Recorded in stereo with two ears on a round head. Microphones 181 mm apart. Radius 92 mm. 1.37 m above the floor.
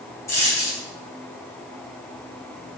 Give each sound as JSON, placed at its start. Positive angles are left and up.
{"t": 0.3, "sound": "a dropped coin", "side_deg": 15, "distance_m": 3.5}